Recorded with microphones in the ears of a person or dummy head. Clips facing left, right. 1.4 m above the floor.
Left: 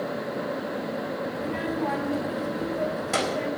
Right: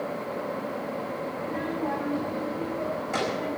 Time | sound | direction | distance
1.4 | a child speaking | 50° left (ahead or behind) | 2 m